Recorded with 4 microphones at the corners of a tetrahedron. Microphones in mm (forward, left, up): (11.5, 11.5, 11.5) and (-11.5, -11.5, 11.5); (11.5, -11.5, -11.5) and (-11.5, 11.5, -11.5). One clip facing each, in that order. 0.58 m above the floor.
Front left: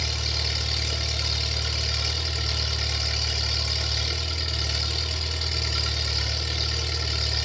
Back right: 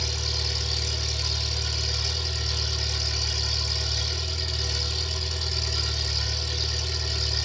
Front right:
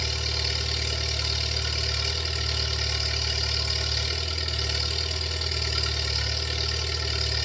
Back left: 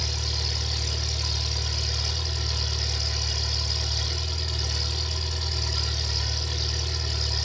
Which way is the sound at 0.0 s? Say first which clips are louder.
Front left 1 dB, front right 2 dB; straight ahead.